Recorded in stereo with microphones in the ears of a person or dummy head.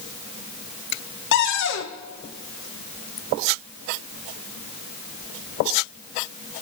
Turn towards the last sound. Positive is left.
turn(degrees=65)  # may be behind; listen again after turning